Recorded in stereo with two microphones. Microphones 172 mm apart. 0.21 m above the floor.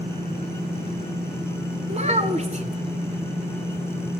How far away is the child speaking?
About 1.3 m.